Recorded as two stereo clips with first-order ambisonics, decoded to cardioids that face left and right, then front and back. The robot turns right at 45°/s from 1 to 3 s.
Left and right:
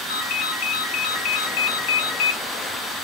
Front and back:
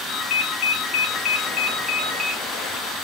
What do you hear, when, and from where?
0.1 s a ringtone: 50° left, 0.9 m; by 2.4 s 115° left, 0.9 m